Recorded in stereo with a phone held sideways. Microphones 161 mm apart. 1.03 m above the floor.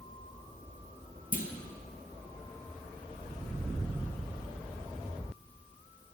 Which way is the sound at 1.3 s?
55° left (ahead or behind).